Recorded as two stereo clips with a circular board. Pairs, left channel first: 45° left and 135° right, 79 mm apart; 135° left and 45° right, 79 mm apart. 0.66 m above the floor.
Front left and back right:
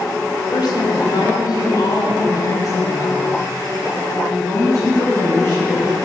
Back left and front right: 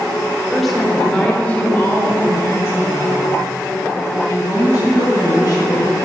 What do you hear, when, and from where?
0.5 s a woman speaking: 45° left, 1.5 m; by 6.0 s 95° left, 4.5 m